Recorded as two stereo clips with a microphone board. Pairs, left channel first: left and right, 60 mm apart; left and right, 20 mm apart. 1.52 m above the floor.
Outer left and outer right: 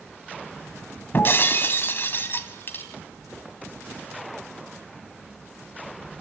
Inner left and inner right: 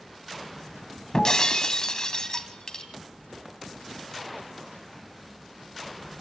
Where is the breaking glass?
40° left (ahead or behind), 2.0 m.